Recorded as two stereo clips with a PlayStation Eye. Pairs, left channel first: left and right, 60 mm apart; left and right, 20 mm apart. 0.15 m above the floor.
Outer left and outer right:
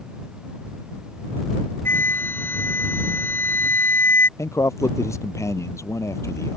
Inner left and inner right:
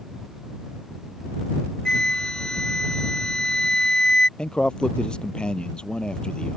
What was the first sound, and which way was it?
A flute, 35° left (ahead or behind).